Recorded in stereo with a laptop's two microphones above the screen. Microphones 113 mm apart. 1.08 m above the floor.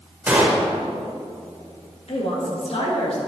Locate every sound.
0.3 s a gunshot: 15° right (ahead or behind), 1.6 m
2.1 s a woman speaking: 65° left (ahead or behind), 1.9 m